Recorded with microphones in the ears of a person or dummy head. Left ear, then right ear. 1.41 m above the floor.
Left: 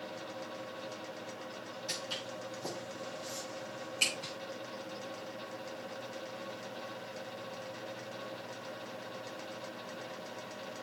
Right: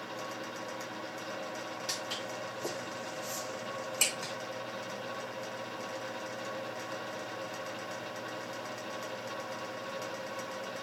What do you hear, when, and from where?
1.9 s footsteps: 20° right (ahead or behind), 4 m; by 4.3 s 40° right (ahead or behind), 5 m